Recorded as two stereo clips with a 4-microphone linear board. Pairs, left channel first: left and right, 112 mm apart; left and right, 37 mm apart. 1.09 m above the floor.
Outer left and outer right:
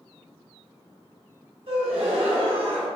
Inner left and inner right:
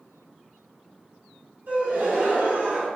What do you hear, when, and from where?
1.7 s a gasp: 60° right (ahead or behind), 1.3 m